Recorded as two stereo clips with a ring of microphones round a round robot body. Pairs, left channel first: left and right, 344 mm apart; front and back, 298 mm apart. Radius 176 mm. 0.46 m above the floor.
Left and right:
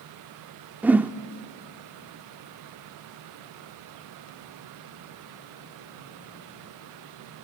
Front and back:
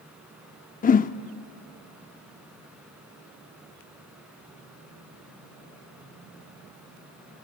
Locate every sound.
0.8 s a whoosh: 10° right, 0.5 m